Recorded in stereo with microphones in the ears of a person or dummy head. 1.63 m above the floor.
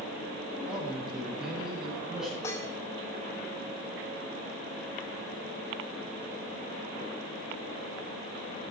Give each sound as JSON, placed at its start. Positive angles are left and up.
{"t": 0.7, "sound": "a man speaking", "side_deg": -10, "distance_m": 9.5}
{"t": 2.4, "sound": "dishes clattering", "side_deg": 15, "distance_m": 3.0}